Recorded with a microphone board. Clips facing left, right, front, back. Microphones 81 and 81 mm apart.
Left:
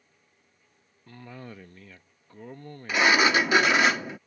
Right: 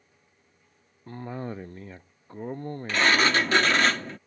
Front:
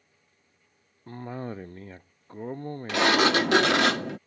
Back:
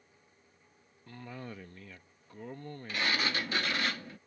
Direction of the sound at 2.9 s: 10° left.